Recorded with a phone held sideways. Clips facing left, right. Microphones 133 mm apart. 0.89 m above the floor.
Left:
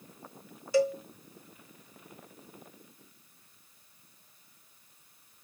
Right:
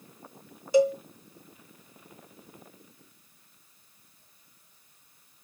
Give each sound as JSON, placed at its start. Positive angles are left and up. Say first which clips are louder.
{"t": 0.7, "sound": "a cowbell", "louder": "right 4 dB", "side_deg": -20, "distance_m": 0.9}